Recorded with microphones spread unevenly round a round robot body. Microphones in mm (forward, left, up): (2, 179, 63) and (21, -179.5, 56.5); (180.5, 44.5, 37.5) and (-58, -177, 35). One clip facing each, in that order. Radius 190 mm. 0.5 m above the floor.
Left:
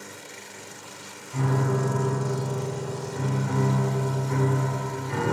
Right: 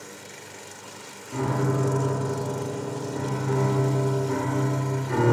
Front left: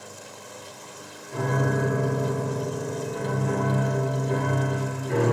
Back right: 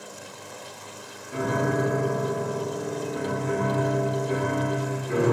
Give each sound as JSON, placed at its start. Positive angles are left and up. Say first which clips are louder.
{"t": 1.3, "sound": "a piano", "louder": "right 1 dB, back right 1 dB", "azimuth_deg": -55, "distance_m": 1.8}